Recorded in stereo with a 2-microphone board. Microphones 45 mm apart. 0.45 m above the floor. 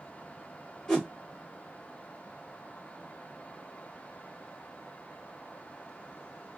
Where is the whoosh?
15° left (ahead or behind), 1.4 m.